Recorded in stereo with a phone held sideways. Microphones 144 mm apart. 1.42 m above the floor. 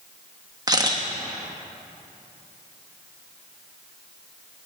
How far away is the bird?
I don't hear a bird.